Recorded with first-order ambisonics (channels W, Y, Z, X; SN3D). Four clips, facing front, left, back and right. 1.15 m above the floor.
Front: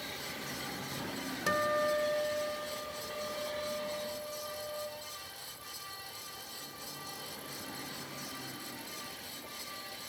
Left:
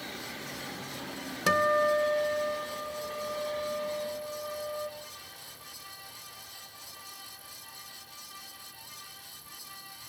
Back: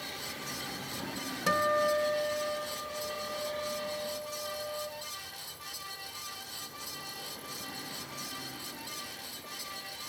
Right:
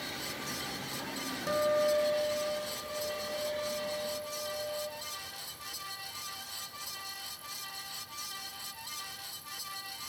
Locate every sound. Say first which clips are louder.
1.5 s a guitar: left 4 dB, back 3 dB; 95° left, 1.7 m